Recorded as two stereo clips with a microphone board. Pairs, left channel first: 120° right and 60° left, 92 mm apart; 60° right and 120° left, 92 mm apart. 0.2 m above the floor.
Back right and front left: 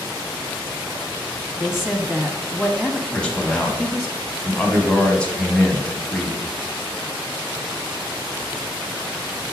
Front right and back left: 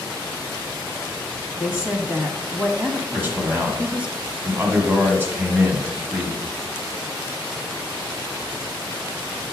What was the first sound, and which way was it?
A woman speaking, 140° left.